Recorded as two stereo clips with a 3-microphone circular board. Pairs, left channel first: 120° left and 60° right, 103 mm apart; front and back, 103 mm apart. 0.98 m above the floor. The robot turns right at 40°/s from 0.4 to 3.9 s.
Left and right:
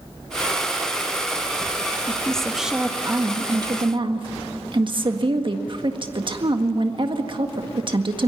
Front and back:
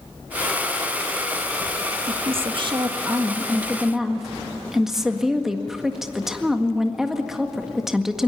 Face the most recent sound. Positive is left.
turn(degrees=-95)